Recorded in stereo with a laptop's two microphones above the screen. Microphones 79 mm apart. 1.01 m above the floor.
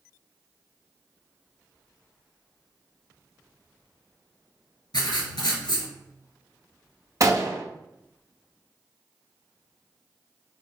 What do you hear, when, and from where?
4.9 s writing: 70° left (ahead or behind), 1.9 m
7.2 s a gunshot: 40° right (ahead or behind), 0.7 m